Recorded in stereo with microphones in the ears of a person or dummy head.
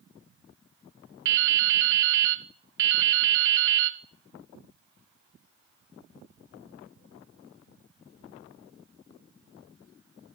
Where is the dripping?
60° right (ahead or behind), 0.7 m.